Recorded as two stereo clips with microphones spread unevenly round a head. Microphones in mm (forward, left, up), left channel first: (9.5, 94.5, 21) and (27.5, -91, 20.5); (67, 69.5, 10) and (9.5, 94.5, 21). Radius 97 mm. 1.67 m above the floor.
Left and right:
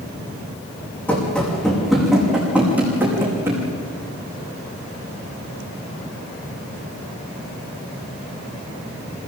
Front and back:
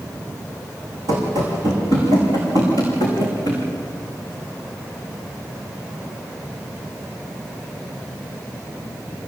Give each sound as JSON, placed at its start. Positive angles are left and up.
{"t": 1.1, "sound": "running footsteps", "azimuth_deg": 180, "distance_m": 6.0}